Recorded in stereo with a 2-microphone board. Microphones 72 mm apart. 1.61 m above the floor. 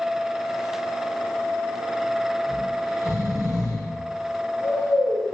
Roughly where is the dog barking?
No dog barking in this recording.